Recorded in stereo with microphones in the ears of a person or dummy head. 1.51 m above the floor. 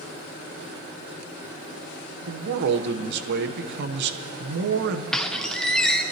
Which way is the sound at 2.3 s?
50° right (ahead or behind).